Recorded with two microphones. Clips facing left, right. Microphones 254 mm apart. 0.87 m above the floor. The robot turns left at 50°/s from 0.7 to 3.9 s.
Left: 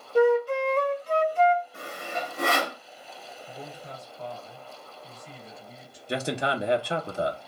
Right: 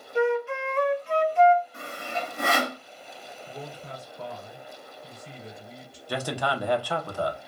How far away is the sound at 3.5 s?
About 2.5 m.